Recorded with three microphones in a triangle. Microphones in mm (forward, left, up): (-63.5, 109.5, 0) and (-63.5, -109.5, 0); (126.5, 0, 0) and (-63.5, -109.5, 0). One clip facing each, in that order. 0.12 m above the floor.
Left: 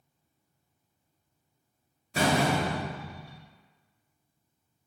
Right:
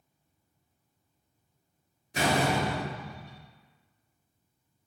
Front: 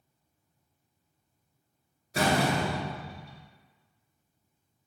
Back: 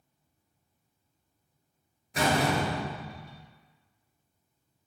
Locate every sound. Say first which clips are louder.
2.1 s a door slam: left 1 dB, even; 65° left, 1.1 m